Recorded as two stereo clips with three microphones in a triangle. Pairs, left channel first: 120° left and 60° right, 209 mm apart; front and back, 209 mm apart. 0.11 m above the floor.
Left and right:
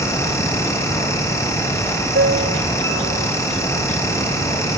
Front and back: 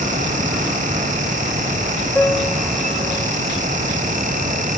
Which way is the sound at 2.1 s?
85° right.